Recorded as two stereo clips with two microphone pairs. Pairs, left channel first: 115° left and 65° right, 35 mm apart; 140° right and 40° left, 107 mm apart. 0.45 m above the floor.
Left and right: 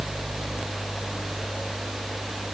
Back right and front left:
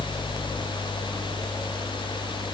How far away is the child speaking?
No child speaking in this recording.